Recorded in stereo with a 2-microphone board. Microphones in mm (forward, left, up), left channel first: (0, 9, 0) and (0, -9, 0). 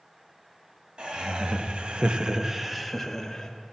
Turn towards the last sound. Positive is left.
turn(degrees=20)  # may be behind; listen again after turning